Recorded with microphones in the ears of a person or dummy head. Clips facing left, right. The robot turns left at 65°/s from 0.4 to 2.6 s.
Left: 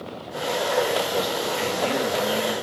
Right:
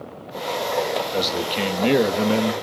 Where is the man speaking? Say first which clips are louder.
Right 1 dB; 30° right, 1.8 m; by 2.5 s 120° right, 1.8 m.